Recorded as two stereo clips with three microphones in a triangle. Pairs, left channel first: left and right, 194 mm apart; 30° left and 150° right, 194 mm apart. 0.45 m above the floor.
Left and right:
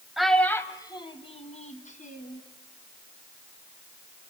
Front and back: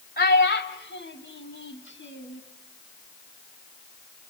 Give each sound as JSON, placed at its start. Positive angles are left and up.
{"t": 0.2, "sound": "a child speaking", "azimuth_deg": 0, "distance_m": 1.8}